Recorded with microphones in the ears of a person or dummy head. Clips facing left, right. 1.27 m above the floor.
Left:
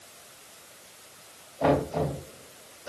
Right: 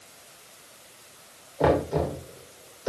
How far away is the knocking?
About 3 m.